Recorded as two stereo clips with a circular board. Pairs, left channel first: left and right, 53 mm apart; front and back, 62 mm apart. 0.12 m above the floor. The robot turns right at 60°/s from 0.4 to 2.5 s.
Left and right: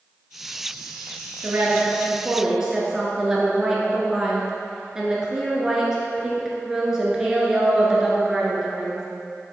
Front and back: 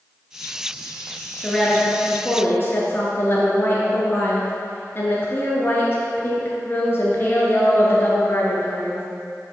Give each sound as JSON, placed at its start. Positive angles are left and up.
{"t": 1.4, "sound": "a woman speaking", "azimuth_deg": -85, "distance_m": 1.6}